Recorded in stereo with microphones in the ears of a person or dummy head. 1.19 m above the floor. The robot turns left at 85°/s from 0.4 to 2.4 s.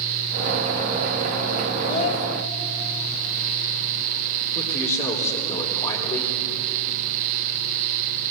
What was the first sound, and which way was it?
A child speaking, 155° left.